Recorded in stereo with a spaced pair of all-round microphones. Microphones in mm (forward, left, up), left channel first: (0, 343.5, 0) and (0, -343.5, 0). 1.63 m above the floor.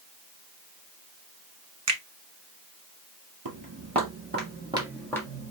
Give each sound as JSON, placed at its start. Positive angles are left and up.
{"t": 1.9, "sound": "a finger snap", "side_deg": -50, "distance_m": 1.2}
{"t": 3.5, "sound": "footsteps", "side_deg": -30, "distance_m": 2.0}